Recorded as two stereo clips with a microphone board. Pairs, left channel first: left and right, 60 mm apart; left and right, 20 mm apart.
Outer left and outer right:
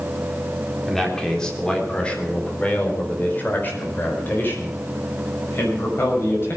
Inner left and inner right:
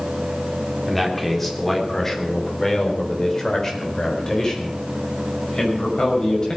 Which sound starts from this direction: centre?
A man speaking, at 0.9 s.